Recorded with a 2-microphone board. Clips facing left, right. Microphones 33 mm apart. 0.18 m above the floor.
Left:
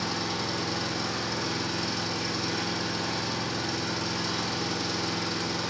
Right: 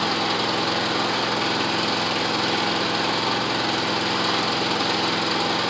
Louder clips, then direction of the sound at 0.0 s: Right 8 dB; 60° right (ahead or behind).